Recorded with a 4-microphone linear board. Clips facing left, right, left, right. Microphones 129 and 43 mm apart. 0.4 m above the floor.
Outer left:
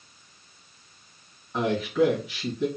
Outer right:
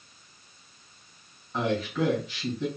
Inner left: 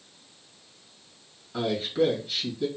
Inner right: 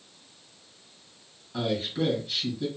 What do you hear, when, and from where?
1.5 s a man speaking: 10° left (ahead or behind), 2 m